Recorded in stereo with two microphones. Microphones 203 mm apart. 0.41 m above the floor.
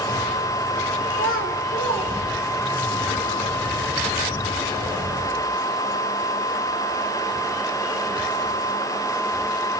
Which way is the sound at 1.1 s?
70° left (ahead or behind).